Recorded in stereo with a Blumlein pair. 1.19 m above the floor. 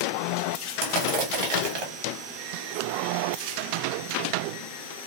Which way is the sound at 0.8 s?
40° right.